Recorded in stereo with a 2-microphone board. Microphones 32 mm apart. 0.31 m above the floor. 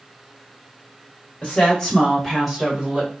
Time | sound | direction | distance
1.4 | a woman speaking | 35° left (ahead or behind) | 1.5 m